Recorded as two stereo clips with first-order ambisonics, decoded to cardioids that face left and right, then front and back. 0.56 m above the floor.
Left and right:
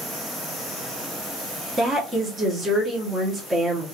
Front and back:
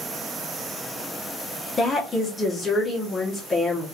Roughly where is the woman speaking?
Ahead right.